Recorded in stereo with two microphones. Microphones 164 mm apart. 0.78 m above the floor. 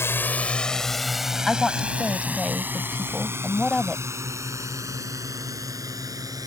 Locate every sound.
0.0 s a drone: 15° left (ahead or behind); by 6.5 s 20° right (ahead or behind)
1.5 s a woman speaking: centre (ahead or behind)